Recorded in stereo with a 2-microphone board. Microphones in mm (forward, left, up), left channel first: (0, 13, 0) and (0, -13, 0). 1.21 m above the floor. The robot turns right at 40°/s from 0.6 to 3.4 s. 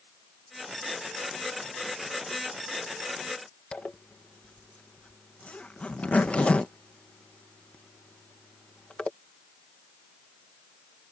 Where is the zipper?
60° left (ahead or behind).